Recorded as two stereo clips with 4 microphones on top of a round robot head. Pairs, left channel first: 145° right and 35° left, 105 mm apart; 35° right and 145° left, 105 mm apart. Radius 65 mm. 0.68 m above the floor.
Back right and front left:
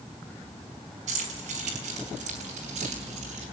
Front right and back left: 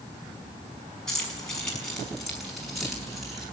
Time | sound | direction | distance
1.1 | keys jangling | 50° left | 5.5 m